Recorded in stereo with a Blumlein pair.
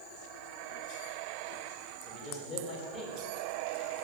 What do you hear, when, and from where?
2.0 s a man speaking: 20° left, 3.5 m